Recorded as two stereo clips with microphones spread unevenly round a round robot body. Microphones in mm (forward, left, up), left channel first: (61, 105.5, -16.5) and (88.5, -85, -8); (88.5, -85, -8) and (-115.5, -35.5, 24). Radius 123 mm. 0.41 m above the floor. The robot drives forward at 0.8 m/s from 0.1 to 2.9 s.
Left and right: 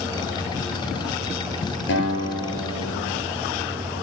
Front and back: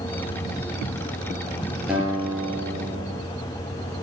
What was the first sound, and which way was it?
A guitar, 80° left.